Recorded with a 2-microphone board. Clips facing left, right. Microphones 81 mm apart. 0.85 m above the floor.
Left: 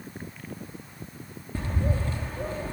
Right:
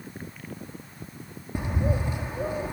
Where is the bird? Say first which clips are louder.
Right 2 dB; 15° right (ahead or behind), 1.9 m.